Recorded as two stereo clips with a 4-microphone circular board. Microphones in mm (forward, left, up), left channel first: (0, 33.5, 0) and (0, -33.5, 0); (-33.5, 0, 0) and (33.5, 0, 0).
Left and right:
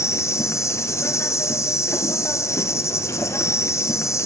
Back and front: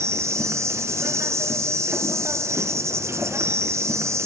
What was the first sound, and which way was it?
An insect, 45° left.